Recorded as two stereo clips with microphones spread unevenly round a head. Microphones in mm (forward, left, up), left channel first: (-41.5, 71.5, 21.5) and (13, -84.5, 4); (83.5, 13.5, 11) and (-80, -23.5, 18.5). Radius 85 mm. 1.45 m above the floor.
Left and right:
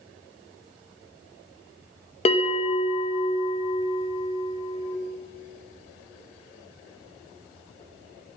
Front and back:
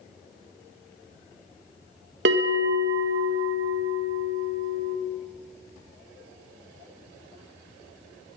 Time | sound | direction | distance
2.2 | a bell | 165° left | 2 m